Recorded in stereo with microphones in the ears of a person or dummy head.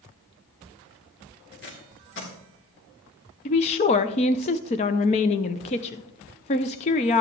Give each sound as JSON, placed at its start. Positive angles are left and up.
{"t": 1.5, "sound": "tape being pulled", "side_deg": 60, "distance_m": 2.0}
{"t": 3.5, "sound": "a woman speaking", "side_deg": 35, "distance_m": 0.6}